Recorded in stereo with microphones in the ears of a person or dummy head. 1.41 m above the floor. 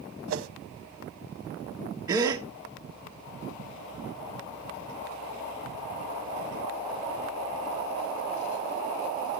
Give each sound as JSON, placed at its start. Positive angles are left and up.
{"t": 0.3, "sound": "a whoosh", "side_deg": -75, "distance_m": 1.0}
{"t": 2.1, "sound": "a gasp", "side_deg": -20, "distance_m": 1.6}